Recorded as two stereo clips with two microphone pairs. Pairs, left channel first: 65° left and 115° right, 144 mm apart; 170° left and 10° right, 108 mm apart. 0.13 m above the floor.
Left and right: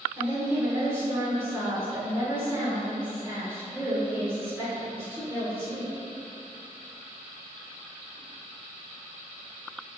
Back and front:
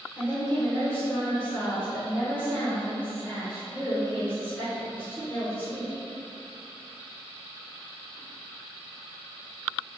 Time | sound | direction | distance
0.2 | a woman speaking | 160° right | 1.1 m